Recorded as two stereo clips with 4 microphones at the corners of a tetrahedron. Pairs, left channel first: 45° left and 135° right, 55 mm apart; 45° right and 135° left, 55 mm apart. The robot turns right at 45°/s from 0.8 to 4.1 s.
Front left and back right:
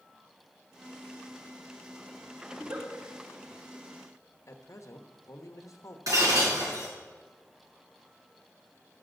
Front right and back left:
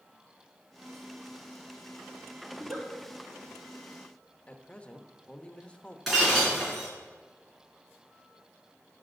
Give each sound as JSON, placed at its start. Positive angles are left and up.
{"t": 2.5, "sound": "a giggle", "azimuth_deg": 170, "distance_m": 3.5}
{"t": 4.5, "sound": "a man speaking", "azimuth_deg": 25, "distance_m": 1.0}
{"t": 6.1, "sound": "breaking glass", "azimuth_deg": -140, "distance_m": 4.5}